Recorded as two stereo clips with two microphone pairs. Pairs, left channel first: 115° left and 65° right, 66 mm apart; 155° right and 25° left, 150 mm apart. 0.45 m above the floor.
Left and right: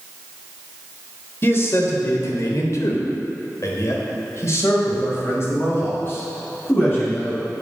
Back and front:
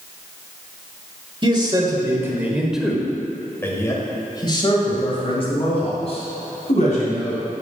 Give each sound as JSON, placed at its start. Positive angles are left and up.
{"t": 1.4, "sound": "a man speaking", "azimuth_deg": 75, "distance_m": 1.5}